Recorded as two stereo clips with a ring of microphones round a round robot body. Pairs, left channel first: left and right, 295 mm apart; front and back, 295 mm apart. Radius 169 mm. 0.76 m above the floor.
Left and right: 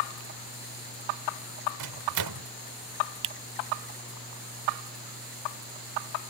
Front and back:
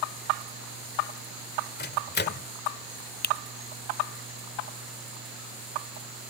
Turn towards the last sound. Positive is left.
turn(degrees=-60)